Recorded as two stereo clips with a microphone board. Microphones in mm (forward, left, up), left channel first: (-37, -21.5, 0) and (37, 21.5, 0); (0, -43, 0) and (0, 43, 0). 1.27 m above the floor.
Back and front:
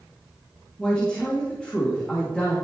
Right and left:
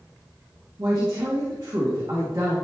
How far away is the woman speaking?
About 2.5 m.